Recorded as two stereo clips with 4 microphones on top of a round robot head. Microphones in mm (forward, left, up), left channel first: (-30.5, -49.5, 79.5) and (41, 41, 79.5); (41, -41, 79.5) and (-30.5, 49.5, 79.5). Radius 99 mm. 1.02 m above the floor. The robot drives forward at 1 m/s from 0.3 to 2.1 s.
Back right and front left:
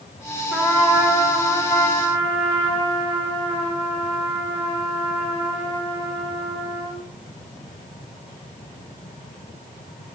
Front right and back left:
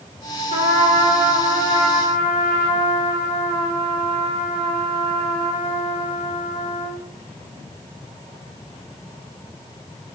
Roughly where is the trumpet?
Behind left.